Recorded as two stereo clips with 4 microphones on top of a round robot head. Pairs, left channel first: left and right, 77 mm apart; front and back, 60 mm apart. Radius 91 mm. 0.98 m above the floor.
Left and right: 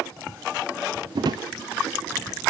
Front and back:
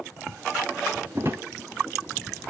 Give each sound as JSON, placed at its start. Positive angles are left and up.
{"t": 1.1, "sound": "a drawer", "azimuth_deg": -115, "distance_m": 0.7}